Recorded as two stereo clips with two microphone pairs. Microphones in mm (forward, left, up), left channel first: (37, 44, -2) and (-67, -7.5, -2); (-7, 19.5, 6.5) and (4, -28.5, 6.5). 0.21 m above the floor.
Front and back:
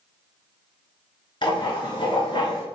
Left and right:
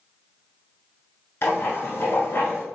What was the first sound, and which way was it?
Writing, 70° left.